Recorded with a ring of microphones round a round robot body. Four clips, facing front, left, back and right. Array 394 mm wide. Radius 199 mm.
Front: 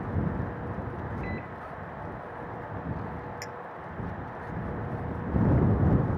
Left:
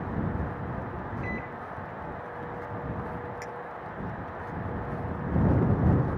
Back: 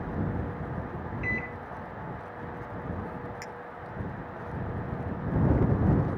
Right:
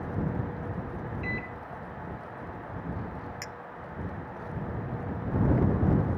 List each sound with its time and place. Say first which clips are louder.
1.2 s a microwave: left 1 dB, back 2 dB; 130° right
3.4 s a clink: left 4 dB, front 1 dB; 65° right